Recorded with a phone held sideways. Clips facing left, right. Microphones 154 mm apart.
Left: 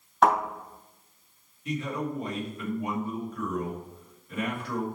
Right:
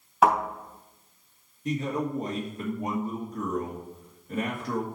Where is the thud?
5° right (ahead or behind), 3.5 m.